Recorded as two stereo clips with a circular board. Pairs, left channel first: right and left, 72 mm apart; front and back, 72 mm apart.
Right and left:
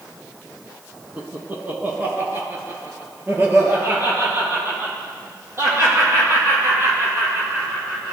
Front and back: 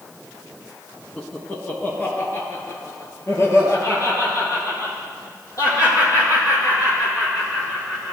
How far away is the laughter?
About 1.4 m.